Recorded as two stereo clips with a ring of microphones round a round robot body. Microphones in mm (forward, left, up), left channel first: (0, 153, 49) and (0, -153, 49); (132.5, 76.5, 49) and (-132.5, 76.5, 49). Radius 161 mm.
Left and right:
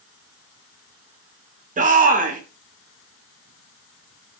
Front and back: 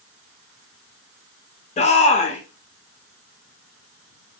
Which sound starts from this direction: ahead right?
A shout, at 1.8 s.